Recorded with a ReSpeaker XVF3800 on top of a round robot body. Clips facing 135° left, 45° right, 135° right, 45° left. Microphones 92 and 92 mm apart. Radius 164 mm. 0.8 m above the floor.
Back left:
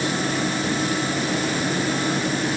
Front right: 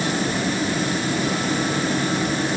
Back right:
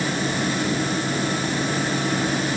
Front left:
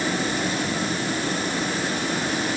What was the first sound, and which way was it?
Only background noise.